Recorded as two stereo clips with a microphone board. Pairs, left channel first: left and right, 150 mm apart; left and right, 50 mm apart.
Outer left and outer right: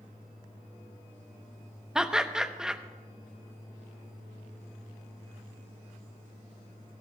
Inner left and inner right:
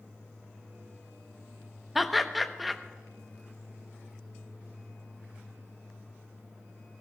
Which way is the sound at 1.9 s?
5° right (ahead or behind).